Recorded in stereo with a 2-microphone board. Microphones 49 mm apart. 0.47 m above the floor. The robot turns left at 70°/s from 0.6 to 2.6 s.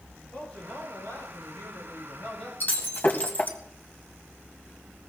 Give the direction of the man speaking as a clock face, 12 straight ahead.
7 o'clock.